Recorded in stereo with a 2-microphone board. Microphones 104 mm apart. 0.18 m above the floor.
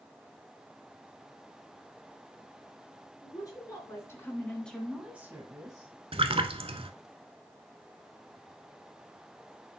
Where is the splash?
65° right (ahead or behind), 0.6 m.